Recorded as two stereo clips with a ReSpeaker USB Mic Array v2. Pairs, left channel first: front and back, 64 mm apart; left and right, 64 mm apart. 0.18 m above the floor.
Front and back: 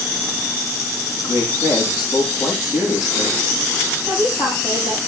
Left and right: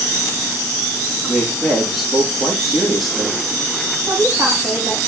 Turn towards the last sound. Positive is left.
turn(degrees=-5)